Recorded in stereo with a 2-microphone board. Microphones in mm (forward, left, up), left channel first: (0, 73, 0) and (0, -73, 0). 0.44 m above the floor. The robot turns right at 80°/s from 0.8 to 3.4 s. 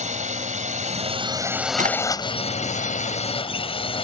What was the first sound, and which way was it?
A drone, 75° right.